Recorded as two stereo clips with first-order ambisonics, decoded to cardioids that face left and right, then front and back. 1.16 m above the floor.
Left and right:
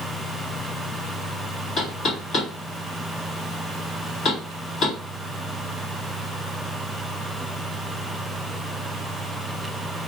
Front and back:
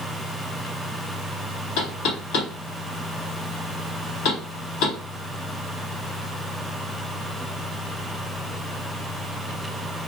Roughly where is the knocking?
Ahead left.